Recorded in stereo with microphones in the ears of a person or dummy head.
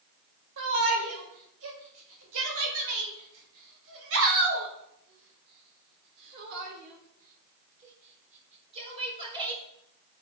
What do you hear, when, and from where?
0.6 s a shout: 80° right, 5 m; by 9.6 s 30° right (ahead or behind), 3.5 m